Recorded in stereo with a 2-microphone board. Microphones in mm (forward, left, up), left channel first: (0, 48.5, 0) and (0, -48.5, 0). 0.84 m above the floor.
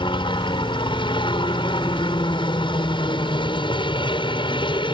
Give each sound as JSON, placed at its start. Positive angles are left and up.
{"t": 0.0, "sound": "a helicopter", "side_deg": 60}